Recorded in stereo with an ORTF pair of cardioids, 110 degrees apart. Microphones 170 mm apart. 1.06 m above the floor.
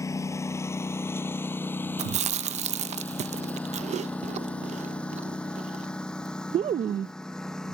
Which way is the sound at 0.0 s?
20° left.